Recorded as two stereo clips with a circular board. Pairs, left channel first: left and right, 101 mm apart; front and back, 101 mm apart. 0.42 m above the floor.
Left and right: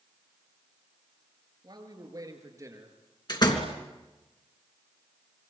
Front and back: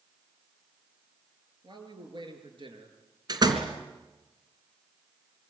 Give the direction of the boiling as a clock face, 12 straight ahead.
No boiling in this recording.